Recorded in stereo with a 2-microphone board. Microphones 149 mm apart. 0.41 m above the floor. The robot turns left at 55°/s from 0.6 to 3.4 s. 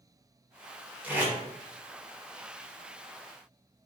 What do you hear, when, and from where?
1.0 s tape being pulled: 10° right (ahead or behind), 1.0 m; by 1.3 s 5° right (ahead or behind), 1.0 m